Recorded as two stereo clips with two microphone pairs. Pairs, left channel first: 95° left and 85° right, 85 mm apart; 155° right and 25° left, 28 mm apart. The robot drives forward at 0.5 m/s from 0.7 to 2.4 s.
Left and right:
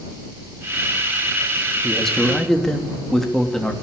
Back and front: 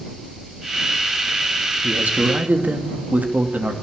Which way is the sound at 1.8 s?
10° left.